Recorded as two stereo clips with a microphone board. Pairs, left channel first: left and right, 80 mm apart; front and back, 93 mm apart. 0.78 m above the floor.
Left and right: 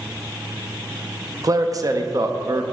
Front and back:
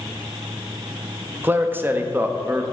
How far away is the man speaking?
About 0.6 m.